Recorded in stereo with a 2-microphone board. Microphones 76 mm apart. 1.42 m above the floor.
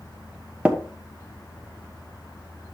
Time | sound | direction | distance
0.7 | tapping | 15° right (ahead or behind) | 1.1 m